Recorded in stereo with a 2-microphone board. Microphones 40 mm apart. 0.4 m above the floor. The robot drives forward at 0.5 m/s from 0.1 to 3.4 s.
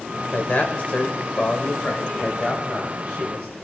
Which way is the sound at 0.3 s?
45° left (ahead or behind).